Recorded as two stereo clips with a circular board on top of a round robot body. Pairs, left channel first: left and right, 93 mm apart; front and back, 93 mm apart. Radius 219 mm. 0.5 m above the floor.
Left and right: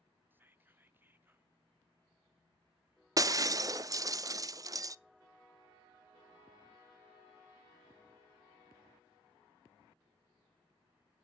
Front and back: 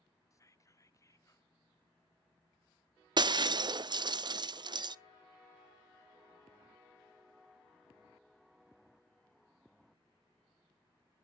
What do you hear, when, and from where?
0.3 s whispering: 35° right, 1.2 m
3.2 s breaking glass: 140° right, 0.6 m